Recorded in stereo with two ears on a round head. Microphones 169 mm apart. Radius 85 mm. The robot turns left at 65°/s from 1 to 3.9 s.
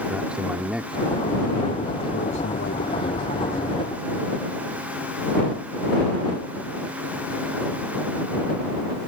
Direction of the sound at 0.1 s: 175° right.